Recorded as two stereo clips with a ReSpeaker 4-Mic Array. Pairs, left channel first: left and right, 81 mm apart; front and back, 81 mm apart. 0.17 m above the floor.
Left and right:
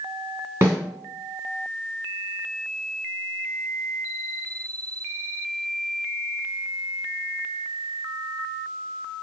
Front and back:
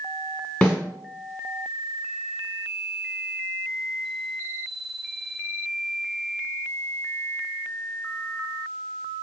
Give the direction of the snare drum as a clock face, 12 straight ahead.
2 o'clock.